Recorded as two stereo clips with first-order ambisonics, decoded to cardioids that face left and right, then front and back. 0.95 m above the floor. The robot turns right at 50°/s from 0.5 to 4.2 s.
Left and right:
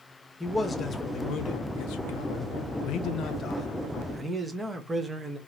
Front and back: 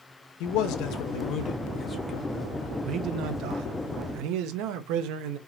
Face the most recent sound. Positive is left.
turn(degrees=-170)